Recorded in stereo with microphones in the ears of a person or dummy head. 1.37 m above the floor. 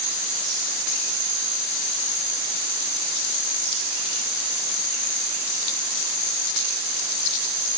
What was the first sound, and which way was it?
Only background noise.